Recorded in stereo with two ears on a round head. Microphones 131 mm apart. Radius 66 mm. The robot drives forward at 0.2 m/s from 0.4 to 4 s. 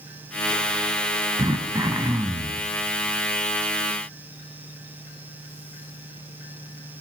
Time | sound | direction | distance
1.4 | throat clearing | 25° right (ahead or behind) | 0.7 m